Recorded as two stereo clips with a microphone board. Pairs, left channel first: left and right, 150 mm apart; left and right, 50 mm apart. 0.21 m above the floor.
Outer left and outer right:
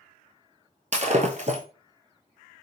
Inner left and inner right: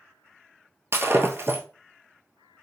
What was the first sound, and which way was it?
Breaking glass, 50° right (ahead or behind).